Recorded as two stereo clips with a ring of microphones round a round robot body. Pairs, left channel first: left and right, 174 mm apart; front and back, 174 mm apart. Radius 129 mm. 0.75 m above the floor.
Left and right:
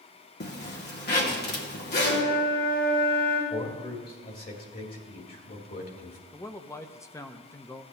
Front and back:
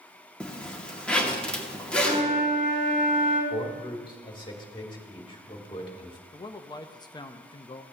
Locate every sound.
0.4 s a zipper: 85° left, 1.9 m
2.0 s a flute: 145° left, 3.5 m
3.5 s a man speaking: 60° left, 2.5 m
6.3 s a man speaking: 35° left, 0.7 m